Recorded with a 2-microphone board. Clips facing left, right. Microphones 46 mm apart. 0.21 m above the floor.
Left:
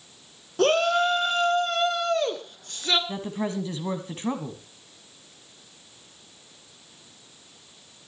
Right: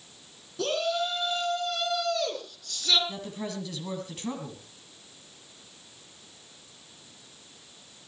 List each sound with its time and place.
0.6 s a shout: 60° left (ahead or behind), 2.5 m; by 3.0 s 30° left (ahead or behind), 3 m
3.1 s a woman speaking: 35° left (ahead or behind), 1.7 m